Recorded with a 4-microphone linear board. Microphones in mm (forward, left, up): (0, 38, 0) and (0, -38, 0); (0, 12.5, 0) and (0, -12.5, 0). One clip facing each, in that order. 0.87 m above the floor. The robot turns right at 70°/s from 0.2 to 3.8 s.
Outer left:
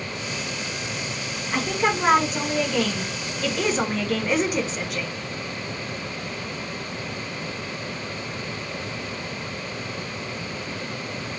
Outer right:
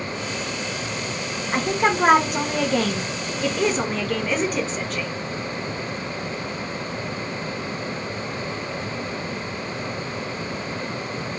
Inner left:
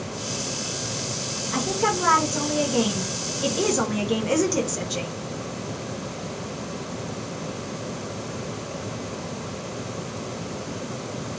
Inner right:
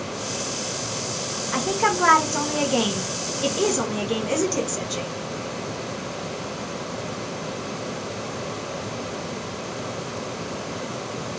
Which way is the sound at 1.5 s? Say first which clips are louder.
Outer right 2 dB, inner right 2 dB; 150° right.